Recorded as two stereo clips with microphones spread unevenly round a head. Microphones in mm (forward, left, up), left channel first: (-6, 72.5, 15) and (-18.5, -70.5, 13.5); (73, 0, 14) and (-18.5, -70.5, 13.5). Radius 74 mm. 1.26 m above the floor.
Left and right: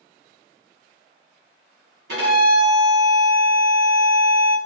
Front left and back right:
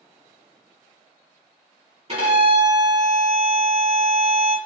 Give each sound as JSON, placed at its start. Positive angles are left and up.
{"t": 2.1, "sound": "a violin", "azimuth_deg": -110, "distance_m": 1.6}